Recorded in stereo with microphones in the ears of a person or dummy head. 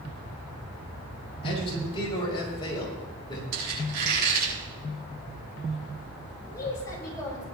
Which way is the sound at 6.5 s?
20° left (ahead or behind).